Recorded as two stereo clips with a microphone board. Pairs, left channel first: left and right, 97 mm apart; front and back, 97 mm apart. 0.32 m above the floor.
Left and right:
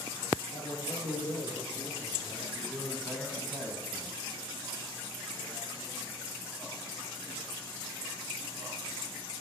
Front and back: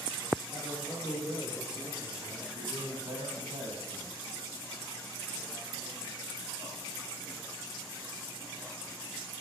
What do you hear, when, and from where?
0.5 s a man speaking: 95° left, 6 m; by 2.4 s 105° left, 3.5 m
2.5 s a man speaking: 175° left, 2.5 m